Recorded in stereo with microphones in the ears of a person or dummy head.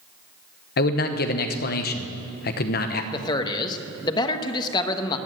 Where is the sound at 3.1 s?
25° left (ahead or behind), 1.1 m.